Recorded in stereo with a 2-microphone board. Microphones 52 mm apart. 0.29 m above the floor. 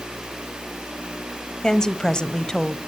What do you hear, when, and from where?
1.6 s a woman speaking: 15° left (ahead or behind), 1.1 m